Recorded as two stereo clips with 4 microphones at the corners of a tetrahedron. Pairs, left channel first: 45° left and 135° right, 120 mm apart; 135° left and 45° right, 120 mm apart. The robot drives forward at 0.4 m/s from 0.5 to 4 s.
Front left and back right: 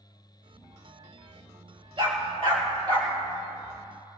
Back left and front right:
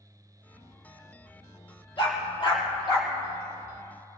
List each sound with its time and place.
2.0 s a dog barking: straight behind, 3 m